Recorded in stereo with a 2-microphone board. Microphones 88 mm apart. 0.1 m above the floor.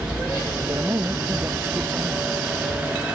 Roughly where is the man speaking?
Right.